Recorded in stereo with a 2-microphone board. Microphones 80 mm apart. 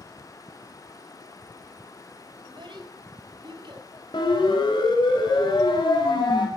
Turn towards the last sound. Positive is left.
turn(degrees=80)